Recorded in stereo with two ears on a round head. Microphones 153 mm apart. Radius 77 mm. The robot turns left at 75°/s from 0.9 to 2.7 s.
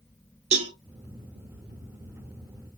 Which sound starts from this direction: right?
A cowbell, at 0.5 s.